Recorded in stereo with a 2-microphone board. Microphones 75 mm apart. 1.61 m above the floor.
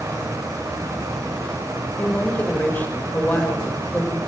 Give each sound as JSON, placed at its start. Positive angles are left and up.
{"t": 2.0, "sound": "a woman speaking", "side_deg": 25, "distance_m": 6.0}